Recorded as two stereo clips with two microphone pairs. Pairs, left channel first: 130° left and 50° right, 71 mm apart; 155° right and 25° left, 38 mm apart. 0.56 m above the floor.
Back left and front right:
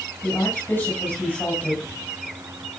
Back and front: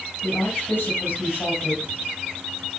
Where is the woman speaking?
165° right, 5 m.